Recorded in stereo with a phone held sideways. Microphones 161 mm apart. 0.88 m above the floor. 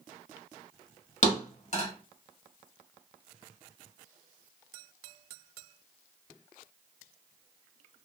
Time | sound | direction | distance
1.2 | a thud | 50° left (ahead or behind) | 1.1 m